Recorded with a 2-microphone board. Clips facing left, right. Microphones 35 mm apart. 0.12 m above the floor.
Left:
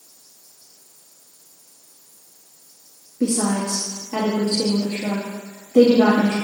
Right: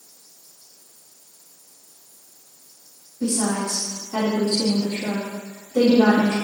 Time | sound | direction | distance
3.2 | a woman speaking | 50° left (ahead or behind) | 1.9 m